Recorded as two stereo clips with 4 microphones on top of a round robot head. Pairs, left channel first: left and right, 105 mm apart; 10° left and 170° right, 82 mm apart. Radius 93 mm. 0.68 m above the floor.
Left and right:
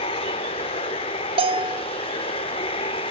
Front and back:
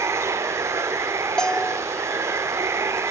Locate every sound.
0.0 s running water: 130° left, 0.7 m
1.4 s a bell: 70° right, 1.6 m